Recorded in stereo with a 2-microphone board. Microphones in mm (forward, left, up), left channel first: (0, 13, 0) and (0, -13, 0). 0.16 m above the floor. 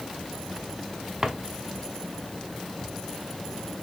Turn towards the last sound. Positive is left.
turn(degrees=-20)  # may be behind; listen again after turning